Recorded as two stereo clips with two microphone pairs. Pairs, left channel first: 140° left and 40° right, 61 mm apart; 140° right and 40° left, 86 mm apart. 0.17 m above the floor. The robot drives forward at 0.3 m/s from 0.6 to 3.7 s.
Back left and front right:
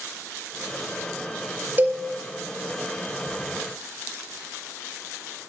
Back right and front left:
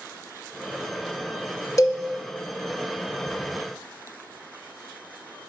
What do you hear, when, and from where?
1.8 s a cowbell: 95° right, 0.6 m; by 2.0 s 100° right, 0.7 m